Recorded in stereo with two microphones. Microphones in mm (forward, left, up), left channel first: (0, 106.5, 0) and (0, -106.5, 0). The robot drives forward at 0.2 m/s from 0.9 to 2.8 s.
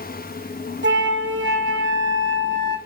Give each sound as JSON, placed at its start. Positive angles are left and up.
{"t": 0.8, "sound": "a flute", "side_deg": -60, "distance_m": 0.5}